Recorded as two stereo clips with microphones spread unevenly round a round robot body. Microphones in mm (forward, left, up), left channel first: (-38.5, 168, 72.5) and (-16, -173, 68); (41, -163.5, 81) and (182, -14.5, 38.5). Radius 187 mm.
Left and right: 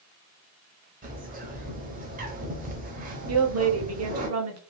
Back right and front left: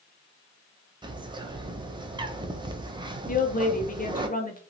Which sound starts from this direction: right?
A woman speaking, at 3.3 s.